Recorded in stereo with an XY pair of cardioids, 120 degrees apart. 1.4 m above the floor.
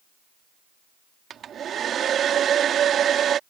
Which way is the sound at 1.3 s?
50° right.